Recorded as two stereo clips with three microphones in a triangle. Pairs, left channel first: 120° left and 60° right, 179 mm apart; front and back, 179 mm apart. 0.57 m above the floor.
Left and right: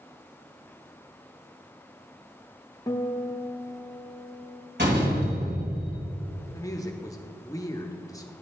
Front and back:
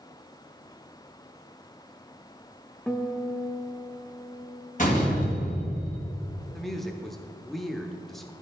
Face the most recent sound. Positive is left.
turn(degrees=90)